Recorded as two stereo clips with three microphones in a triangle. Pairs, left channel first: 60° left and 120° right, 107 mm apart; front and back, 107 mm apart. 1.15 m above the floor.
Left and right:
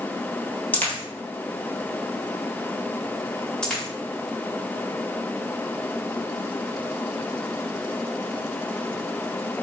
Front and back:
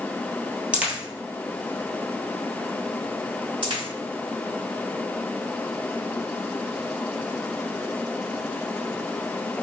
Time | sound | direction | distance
0.7 | a dropped coin | 115° left | 1.2 m
3.6 | a dropped coin | 140° left | 1.9 m